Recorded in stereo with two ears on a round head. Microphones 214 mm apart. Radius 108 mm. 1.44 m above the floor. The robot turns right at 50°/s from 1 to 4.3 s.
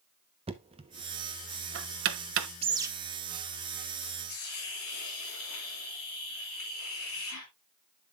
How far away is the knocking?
About 0.8 m.